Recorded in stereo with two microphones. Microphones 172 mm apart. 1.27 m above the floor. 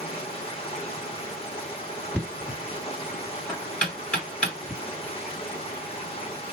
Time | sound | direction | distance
0.0 | running water | 35° left (ahead or behind) | 1.4 m
2.1 | knocking | 10° left (ahead or behind) | 1.9 m